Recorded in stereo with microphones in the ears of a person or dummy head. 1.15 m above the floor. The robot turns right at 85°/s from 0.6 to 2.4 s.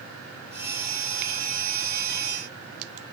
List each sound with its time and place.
Only background noise.